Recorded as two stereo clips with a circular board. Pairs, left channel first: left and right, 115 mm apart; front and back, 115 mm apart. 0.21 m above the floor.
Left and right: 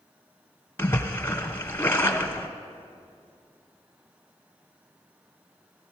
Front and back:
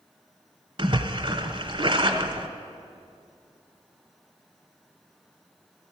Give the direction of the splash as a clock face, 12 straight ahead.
7 o'clock.